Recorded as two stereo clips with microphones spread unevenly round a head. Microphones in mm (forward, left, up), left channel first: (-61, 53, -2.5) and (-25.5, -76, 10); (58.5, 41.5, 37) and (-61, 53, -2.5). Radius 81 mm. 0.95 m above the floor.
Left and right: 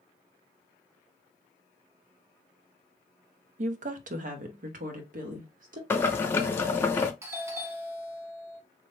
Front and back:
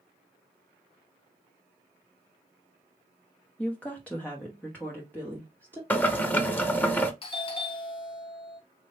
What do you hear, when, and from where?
3.6 s a woman speaking: 95° right, 0.5 m; by 5.8 s 85° right, 1.7 m
5.9 s boiling: 90° left, 0.7 m
7.2 s a doorbell: 15° right, 0.7 m